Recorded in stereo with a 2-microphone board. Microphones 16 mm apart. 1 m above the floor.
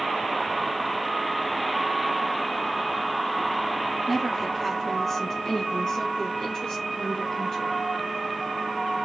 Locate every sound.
4.1 s a woman speaking: centre (ahead or behind), 1.3 m; by 7.8 s 35° left (ahead or behind), 1.8 m